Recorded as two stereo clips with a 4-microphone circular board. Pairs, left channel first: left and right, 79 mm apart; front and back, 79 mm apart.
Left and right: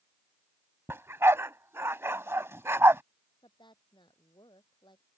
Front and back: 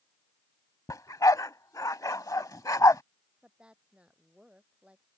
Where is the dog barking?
35° right.